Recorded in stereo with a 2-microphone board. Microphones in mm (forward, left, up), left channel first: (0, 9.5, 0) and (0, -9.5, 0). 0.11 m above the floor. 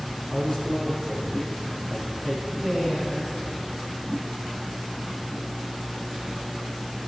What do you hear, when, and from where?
0.3 s a man speaking: 15° left (ahead or behind), 4.5 m
2.6 s a woman speaking: 35° left (ahead or behind), 6.5 m